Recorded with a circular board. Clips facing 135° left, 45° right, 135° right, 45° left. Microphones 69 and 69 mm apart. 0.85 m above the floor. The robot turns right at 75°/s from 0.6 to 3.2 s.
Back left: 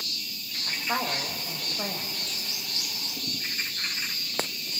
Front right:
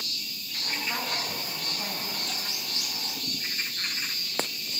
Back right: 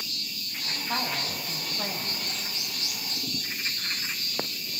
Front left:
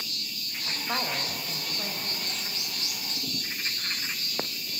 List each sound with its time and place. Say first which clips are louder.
0.7 s a woman speaking: back left 3 dB, even; 65° left, 4 m; by 2.1 s straight behind, 4 m